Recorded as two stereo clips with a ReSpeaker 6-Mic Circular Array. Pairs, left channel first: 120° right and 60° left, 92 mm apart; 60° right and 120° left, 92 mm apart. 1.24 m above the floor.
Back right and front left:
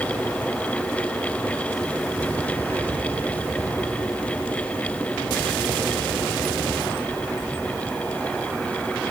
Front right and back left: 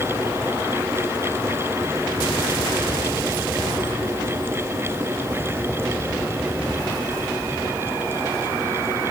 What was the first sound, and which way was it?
Only background noise.